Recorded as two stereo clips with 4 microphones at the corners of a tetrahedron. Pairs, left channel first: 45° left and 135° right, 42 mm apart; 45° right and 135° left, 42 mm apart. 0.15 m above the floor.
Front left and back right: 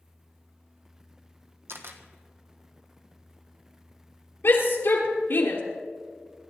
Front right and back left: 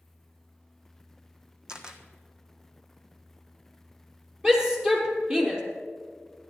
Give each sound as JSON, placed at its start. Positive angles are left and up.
{"t": 1.7, "sound": "a camera shutter", "azimuth_deg": -150, "distance_m": 1.4}
{"t": 4.4, "sound": "a shout", "azimuth_deg": 65, "distance_m": 3.5}